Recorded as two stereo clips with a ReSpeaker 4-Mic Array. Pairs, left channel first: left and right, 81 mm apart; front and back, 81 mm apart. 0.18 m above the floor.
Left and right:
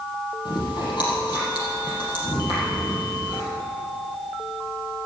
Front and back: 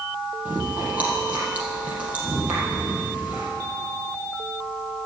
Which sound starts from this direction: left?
Chewing, at 0.5 s.